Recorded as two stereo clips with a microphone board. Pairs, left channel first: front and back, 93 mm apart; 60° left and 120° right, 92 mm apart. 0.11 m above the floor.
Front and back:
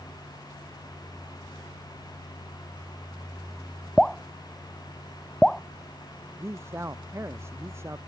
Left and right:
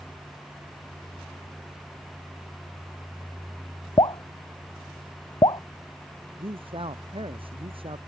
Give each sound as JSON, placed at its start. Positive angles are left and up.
{"t": 4.0, "sound": "dripping", "azimuth_deg": 85}
{"t": 6.4, "sound": "a man speaking", "azimuth_deg": -120}